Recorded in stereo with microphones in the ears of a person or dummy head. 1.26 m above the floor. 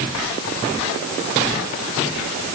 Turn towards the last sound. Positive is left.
No sound to turn to.